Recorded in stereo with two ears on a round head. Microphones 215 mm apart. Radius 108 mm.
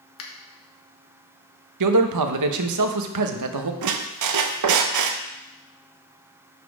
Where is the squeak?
85° right, 0.7 m.